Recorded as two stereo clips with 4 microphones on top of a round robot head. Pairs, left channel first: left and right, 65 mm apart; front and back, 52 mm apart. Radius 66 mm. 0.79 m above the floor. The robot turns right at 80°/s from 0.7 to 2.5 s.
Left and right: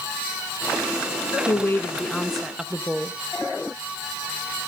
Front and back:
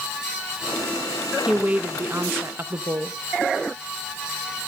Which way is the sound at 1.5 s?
110° left.